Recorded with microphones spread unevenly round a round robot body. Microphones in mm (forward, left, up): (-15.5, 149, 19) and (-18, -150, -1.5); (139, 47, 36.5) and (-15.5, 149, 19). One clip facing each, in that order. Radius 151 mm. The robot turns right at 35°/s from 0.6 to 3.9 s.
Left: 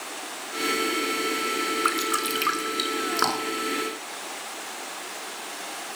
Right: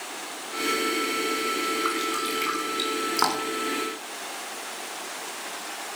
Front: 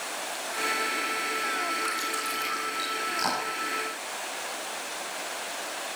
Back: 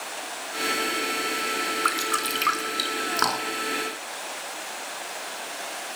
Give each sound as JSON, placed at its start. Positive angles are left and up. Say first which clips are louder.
{"t": 1.9, "sound": "dripping", "louder": "even, back 5 dB", "azimuth_deg": 140, "distance_m": 3.5}